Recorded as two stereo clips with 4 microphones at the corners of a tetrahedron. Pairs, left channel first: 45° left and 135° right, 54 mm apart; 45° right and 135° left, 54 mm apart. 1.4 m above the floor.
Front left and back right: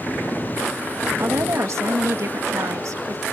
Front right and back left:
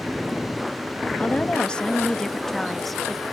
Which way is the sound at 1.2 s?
110° right.